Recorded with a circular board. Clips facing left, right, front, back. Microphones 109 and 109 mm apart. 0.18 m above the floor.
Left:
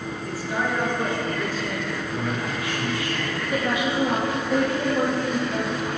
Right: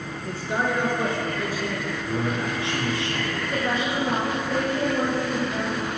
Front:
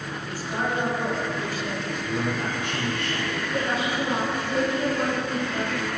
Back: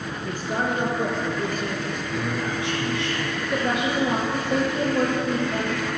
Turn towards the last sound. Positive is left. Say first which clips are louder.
# left 2 dB, back 3 dB
turn(degrees=170)